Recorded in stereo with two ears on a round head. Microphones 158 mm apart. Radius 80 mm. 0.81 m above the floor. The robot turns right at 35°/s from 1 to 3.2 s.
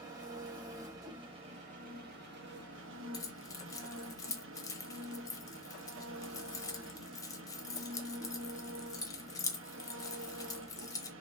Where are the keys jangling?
20° left (ahead or behind), 0.6 m.